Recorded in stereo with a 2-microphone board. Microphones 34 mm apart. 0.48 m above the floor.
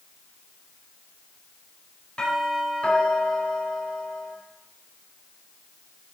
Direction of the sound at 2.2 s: 35° left (ahead or behind).